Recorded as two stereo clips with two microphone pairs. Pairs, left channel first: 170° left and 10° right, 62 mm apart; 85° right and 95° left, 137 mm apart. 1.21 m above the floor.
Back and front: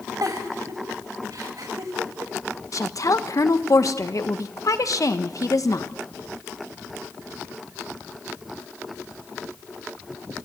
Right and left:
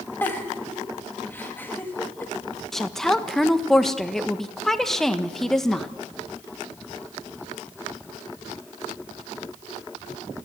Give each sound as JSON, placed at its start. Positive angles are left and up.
{"t": 0.2, "sound": "a giggle", "azimuth_deg": -10, "distance_m": 2.5}
{"t": 2.7, "sound": "a woman speaking", "azimuth_deg": -170, "distance_m": 1.3}